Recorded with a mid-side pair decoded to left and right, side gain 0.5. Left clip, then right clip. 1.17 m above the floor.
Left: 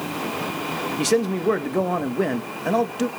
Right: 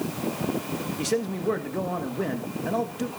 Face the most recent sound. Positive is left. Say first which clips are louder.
# left 6 dB
turn(degrees=40)